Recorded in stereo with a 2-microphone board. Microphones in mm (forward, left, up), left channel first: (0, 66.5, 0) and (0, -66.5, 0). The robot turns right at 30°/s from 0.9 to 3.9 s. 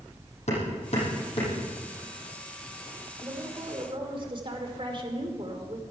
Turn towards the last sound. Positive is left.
turn(degrees=-40)  # may be behind; listen again after turning